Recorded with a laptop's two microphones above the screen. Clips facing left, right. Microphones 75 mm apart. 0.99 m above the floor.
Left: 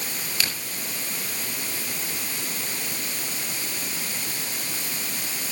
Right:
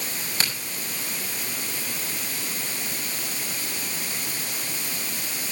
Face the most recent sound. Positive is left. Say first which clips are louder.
# right 1 dB
turn(degrees=-35)  # may be behind; listen again after turning